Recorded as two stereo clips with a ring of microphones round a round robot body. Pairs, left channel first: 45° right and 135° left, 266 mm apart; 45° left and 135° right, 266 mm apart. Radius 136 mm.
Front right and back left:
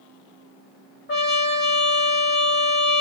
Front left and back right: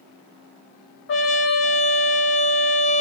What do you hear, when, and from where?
1.1 s a trumpet: 5° left, 0.8 m